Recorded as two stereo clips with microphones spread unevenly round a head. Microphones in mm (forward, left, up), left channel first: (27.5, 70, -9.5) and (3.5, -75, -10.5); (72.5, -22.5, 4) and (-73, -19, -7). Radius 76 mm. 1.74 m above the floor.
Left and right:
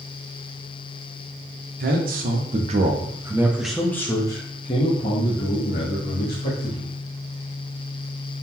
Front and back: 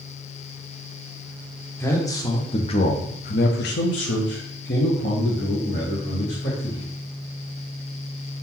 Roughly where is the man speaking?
Right.